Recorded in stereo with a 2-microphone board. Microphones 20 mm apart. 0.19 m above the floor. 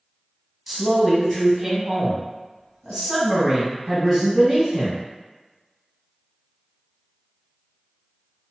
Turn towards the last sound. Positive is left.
turn(degrees=-10)  # may be behind; listen again after turning